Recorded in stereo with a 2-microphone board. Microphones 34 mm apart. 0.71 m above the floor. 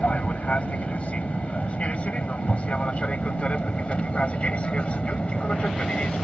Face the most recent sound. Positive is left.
turn(degrees=35)  # may be behind; listen again after turning